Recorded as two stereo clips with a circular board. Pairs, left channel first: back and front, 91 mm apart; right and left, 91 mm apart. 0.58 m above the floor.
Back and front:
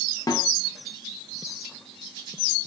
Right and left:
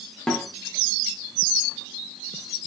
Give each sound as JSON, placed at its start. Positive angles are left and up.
{"t": 0.3, "sound": "a snare drum", "azimuth_deg": -170, "distance_m": 0.7}